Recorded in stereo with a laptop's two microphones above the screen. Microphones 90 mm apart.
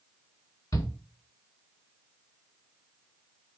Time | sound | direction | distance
0.7 | a shout | 40° left (ahead or behind) | 2.5 m